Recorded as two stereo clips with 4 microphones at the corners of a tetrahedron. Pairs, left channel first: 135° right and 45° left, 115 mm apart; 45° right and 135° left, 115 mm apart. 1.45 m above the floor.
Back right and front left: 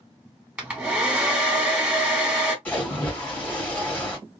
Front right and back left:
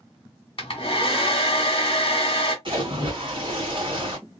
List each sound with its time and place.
0.6 s a hair dryer: 30° right, 1.4 m
2.6 s a splash: 155° left, 1.8 m